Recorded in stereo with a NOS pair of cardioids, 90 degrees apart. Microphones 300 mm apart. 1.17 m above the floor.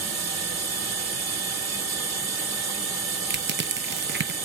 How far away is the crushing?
About 0.8 m.